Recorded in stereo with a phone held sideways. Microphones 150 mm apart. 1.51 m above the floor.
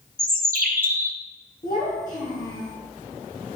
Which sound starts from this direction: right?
A bird, at 0.2 s.